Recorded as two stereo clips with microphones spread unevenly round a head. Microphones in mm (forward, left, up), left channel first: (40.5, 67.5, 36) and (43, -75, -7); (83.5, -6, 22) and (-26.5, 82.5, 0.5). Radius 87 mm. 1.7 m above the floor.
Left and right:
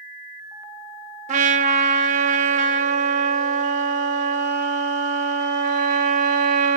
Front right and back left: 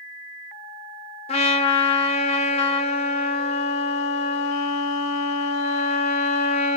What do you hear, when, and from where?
1.3 s a trumpet: 50° right, 0.6 m